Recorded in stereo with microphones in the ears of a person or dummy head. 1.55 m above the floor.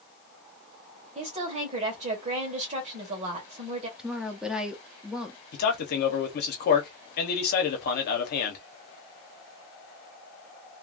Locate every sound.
1.1 s a woman speaking: 35° right (ahead or behind), 1.5 m
4.0 s a woman speaking: 5° right (ahead or behind), 0.6 m
5.5 s a man speaking: 55° left (ahead or behind), 1.0 m